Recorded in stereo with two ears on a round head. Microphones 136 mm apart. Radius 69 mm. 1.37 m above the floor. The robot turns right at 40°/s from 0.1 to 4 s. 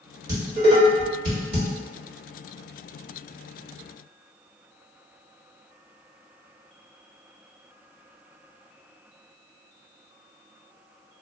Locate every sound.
0.3 s dishes clattering: 25° right (ahead or behind), 1.4 m; by 1.7 s 70° right (ahead or behind), 1.4 m